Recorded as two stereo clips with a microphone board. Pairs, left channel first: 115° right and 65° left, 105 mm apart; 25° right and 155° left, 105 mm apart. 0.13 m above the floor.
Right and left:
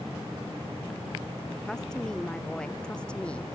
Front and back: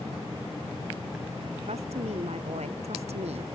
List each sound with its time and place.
1.7 s a woman speaking: 165° left; by 3.5 s 170° left